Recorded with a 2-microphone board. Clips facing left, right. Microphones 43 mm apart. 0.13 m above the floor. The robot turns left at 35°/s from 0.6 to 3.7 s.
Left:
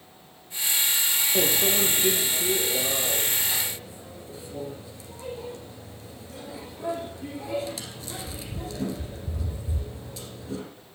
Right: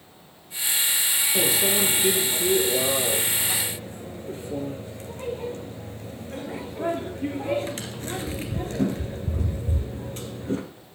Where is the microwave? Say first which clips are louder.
Right 1 dB; 15° left (ahead or behind), 2 m; by 10.6 s 50° right (ahead or behind), 2 m.